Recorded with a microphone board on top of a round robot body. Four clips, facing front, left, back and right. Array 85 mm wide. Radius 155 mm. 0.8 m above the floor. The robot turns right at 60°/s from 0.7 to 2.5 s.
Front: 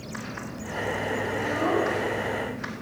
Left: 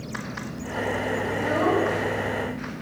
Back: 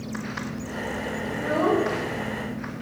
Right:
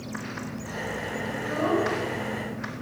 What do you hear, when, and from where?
1.3 s a child speaking: 125° left, 2.5 m; by 2.8 s 160° right, 2.5 m